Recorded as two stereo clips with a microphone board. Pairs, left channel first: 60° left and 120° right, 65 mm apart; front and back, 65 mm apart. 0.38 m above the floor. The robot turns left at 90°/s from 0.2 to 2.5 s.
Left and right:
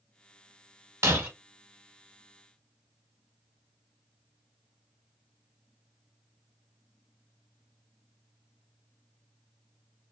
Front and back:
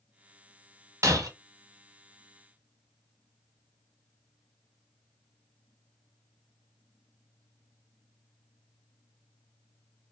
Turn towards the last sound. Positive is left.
turn(degrees=75)